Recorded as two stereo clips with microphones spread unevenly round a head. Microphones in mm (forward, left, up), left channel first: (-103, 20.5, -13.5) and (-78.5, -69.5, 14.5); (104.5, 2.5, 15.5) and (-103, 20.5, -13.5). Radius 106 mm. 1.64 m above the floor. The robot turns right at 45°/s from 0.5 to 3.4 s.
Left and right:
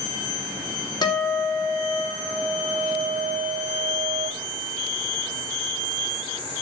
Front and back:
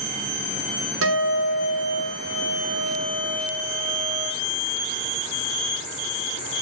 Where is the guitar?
150° left, 3 m; by 4.3 s 100° right, 3 m.